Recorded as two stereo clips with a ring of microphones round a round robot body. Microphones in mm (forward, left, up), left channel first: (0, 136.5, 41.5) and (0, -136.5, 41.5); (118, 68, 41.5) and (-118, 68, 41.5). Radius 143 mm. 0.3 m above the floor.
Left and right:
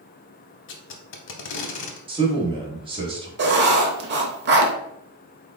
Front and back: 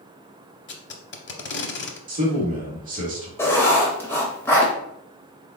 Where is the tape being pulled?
45° left, 0.7 m.